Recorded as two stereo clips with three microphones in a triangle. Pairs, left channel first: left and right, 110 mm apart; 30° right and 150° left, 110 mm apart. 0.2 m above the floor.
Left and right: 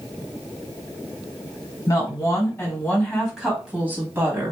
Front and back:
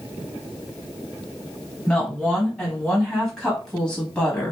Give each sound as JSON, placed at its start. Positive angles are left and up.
{"t": 1.9, "sound": "a woman speaking", "azimuth_deg": 60, "distance_m": 1.4}